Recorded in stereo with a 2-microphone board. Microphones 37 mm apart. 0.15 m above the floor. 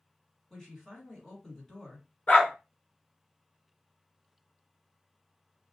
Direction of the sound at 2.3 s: 40° left (ahead or behind).